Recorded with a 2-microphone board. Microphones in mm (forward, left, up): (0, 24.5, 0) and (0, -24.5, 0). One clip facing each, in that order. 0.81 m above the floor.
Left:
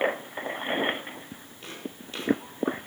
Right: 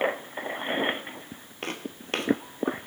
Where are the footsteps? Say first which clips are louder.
Right 5 dB; 55° right (ahead or behind), 1.3 m.